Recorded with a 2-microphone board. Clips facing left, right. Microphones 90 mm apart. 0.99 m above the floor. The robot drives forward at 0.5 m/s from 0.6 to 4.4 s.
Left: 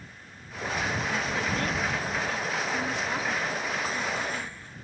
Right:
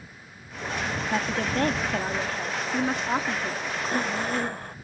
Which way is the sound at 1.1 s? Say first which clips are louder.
Right 3 dB; 60° right (ahead or behind).